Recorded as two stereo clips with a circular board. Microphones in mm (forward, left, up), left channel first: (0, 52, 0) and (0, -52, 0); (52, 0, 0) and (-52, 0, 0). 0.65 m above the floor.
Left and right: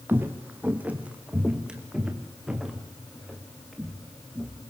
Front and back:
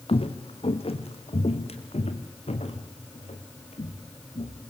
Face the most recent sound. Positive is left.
turn(degrees=0)